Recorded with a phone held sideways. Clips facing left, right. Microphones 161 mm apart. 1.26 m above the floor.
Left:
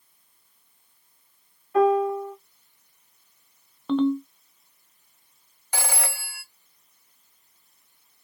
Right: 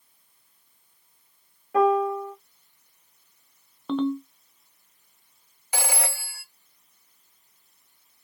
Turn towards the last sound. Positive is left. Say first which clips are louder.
# right 1 dB
turn(degrees=-10)  # may be behind; listen again after turning